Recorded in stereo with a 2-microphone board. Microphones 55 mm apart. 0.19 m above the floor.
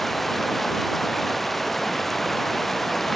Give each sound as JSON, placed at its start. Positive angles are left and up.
{"t": 0.0, "sound": "running water", "side_deg": 5}